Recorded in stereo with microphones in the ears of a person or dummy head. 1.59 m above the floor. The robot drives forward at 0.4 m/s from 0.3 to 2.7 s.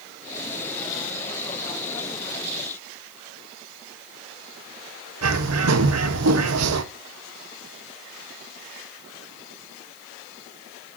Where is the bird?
85° right, 1.3 m.